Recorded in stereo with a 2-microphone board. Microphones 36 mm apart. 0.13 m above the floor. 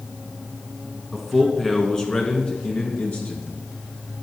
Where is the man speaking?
5° right (ahead or behind), 1.3 m; by 3.4 s 50° left (ahead or behind), 2.0 m.